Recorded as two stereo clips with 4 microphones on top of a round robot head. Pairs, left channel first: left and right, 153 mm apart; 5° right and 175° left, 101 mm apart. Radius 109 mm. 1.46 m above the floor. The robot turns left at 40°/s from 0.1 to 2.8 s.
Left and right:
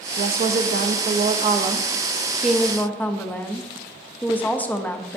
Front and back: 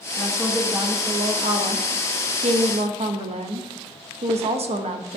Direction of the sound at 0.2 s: 85° right.